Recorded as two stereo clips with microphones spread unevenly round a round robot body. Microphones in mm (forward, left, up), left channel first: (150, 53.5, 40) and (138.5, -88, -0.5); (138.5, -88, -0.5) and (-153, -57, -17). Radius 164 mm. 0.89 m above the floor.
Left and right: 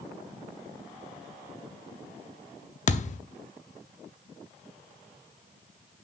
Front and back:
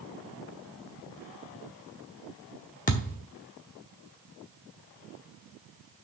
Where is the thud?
60° left, 0.8 m.